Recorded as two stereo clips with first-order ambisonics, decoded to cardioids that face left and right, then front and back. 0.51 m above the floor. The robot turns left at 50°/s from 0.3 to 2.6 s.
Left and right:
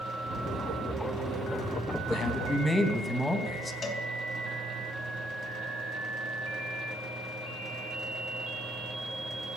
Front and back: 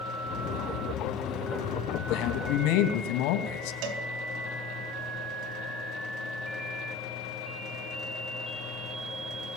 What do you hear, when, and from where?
2.1 s a man speaking: 35° left, 3.5 m; by 3.7 s 10° left, 3.5 m
3.8 s a cowbell: 160° left, 4 m